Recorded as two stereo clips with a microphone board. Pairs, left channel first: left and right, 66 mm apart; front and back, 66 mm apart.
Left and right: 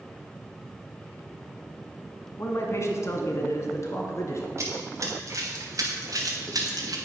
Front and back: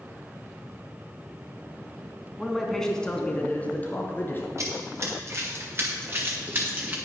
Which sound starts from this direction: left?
A man speaking, at 2.4 s.